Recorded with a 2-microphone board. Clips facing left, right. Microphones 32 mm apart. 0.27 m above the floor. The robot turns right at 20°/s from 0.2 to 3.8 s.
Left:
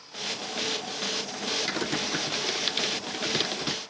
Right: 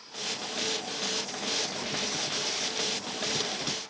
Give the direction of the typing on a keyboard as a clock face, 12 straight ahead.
8 o'clock.